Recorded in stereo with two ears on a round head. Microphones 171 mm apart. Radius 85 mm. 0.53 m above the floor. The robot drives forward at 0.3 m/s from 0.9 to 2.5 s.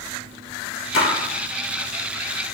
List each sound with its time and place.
0.9 s a splash: 75° left (ahead or behind), 2 m; by 1.1 s 70° left (ahead or behind), 2 m